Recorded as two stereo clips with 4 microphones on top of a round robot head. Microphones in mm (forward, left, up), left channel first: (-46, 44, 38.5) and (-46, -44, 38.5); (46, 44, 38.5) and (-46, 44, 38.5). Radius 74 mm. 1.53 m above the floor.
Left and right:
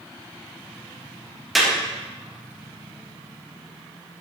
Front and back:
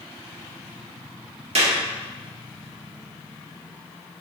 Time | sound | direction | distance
1.6 | a clap | straight behind | 3.5 m